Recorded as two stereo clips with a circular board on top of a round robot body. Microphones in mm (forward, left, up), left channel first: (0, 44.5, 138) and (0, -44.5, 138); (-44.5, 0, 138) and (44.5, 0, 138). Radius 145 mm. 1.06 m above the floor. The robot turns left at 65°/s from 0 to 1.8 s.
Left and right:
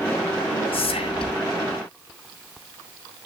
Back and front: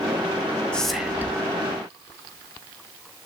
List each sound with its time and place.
0.7 s whispering: 100° left, 2.0 m; by 1.4 s 60° left, 2.0 m